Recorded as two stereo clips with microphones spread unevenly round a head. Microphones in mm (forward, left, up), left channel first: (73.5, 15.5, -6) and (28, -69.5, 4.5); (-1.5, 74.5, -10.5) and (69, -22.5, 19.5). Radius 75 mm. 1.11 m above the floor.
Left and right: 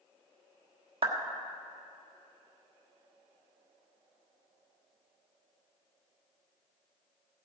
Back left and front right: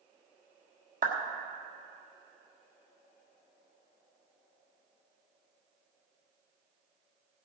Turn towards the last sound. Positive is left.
turn(degrees=-90)